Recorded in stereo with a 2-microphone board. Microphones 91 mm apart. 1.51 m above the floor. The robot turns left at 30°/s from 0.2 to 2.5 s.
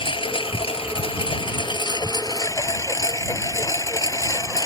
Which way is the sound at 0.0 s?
105° left.